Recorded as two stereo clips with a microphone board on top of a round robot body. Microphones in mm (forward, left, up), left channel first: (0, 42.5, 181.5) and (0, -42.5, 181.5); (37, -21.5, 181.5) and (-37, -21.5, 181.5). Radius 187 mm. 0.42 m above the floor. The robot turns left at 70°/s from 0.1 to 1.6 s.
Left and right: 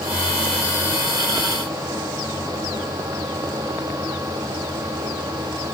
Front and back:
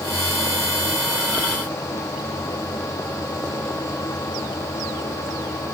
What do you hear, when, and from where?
Only background noise.